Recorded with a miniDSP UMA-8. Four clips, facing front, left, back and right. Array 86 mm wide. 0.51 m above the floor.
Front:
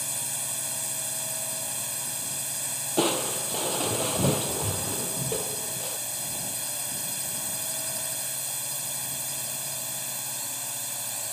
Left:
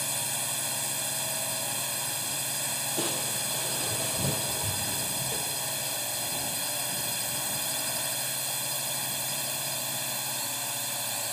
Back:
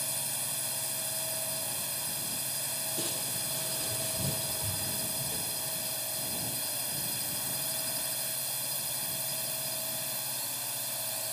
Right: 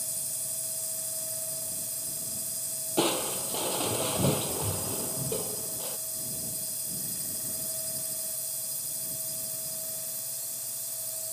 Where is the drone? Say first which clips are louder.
Left 11 dB, front 2 dB; 80° left.